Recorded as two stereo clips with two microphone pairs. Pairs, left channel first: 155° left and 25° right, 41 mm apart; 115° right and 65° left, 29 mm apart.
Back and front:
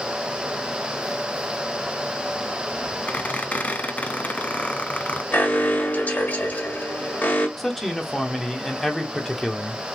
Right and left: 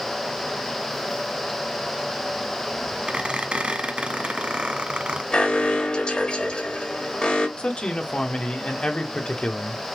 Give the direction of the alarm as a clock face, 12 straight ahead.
5 o'clock.